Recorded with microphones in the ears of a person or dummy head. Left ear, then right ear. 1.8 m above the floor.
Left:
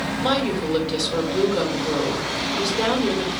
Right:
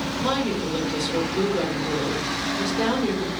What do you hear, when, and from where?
0.2 s a woman speaking: 20° left (ahead or behind), 1.6 m